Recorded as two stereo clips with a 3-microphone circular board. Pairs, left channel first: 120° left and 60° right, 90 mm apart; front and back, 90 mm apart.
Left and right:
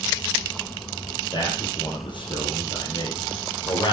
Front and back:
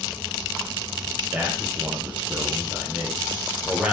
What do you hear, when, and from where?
1.3 s a man speaking: 105° left, 3.5 m